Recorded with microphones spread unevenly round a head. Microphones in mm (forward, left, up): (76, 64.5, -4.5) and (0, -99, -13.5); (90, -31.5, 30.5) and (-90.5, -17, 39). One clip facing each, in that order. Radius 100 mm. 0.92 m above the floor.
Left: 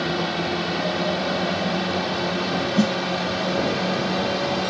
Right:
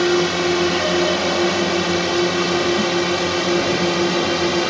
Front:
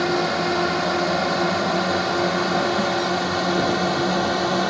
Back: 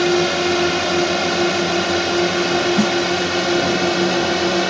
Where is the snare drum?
135° left.